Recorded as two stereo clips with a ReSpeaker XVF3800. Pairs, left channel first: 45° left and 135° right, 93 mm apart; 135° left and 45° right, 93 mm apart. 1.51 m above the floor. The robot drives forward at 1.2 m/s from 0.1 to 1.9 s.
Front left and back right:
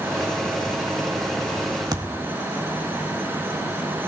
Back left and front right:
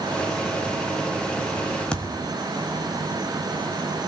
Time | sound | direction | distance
1.9 | a thud | 150° right | 1.3 m